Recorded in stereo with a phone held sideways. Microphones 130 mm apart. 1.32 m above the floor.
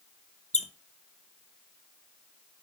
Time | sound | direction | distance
0.5 | a squeak | 60° left (ahead or behind) | 0.6 m